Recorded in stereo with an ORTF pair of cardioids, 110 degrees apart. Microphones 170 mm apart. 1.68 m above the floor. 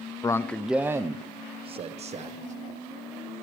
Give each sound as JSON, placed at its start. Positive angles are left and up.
{"t": 0.2, "sound": "a man speaking", "azimuth_deg": 20, "distance_m": 0.7}